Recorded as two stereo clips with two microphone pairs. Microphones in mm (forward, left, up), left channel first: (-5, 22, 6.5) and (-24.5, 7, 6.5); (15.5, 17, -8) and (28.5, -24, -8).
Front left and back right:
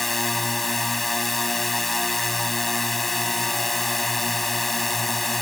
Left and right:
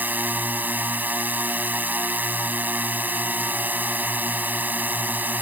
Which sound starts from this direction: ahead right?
A drone, at 0.0 s.